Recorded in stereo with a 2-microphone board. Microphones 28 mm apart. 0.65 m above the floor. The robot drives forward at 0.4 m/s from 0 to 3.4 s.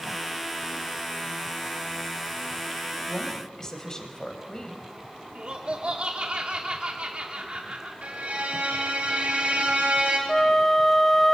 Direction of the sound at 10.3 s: 15° left (ahead or behind).